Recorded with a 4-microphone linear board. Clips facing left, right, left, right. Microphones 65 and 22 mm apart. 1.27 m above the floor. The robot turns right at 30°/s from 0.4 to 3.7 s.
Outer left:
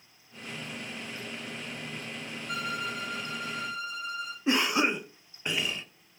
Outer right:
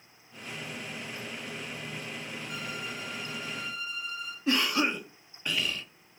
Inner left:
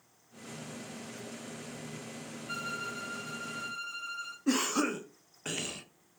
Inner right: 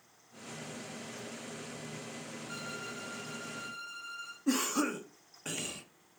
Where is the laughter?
No laughter in this recording.